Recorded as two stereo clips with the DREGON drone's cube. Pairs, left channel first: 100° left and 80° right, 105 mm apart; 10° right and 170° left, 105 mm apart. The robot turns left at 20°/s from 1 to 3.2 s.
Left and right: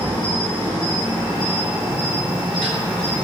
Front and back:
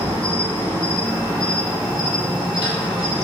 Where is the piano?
No piano in this recording.